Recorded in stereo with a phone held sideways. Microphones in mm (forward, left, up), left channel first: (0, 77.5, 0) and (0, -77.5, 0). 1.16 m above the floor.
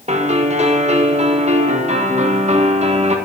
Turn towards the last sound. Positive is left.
turn(degrees=-50)  # may be behind; listen again after turning